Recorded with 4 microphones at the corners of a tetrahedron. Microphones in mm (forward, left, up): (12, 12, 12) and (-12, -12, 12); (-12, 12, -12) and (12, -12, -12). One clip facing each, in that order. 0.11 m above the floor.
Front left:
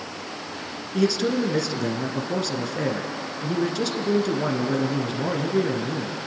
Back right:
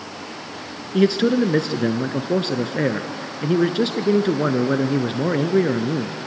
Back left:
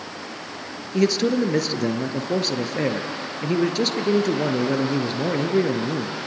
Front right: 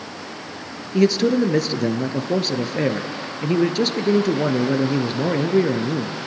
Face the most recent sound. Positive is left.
turn(degrees=-125)